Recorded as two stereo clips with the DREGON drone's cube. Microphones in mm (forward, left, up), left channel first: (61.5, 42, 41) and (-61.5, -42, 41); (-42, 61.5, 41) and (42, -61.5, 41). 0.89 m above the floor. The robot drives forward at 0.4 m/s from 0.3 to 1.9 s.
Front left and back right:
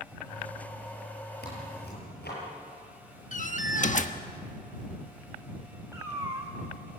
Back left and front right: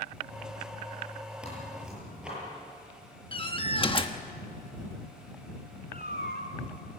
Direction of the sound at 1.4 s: 30° left.